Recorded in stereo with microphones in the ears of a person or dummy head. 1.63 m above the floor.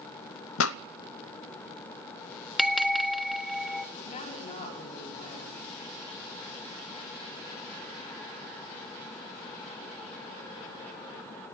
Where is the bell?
5° left (ahead or behind), 1.4 m.